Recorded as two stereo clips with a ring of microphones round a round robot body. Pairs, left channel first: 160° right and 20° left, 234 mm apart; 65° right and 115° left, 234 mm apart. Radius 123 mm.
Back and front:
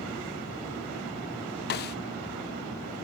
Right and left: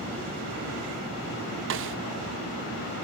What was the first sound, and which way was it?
A snare drum, 155° left.